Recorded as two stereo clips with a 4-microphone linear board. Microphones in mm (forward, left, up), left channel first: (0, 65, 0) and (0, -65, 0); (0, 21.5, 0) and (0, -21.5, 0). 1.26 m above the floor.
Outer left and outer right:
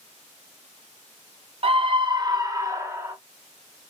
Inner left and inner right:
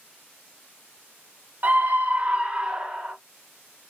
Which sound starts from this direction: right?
A scream, at 1.6 s.